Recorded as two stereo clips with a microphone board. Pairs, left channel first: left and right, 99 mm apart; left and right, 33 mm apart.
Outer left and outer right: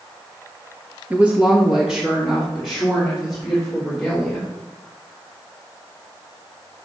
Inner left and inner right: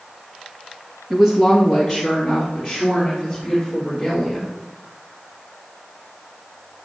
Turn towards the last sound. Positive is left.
turn(degrees=0)  # may be behind; listen again after turning